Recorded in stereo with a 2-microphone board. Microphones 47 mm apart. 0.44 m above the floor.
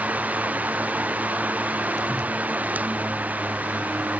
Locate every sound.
2.0 s a whoosh: 45° left (ahead or behind), 1.3 m